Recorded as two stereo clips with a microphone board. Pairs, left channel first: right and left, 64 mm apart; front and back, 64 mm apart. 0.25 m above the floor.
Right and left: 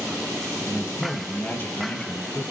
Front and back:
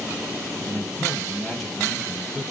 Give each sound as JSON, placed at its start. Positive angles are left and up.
{"t": 0.7, "sound": "a man speaking", "azimuth_deg": -80, "distance_m": 1.0}